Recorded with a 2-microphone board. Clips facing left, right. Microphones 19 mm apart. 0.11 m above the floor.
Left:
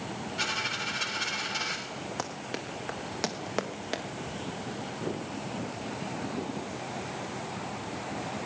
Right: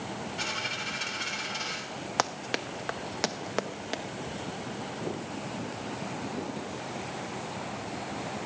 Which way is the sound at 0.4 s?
10° left (ahead or behind).